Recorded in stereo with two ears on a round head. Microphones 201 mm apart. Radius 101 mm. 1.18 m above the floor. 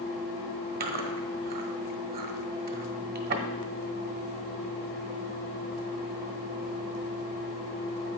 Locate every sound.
0.8 s chewing: 40° right (ahead or behind), 1.2 m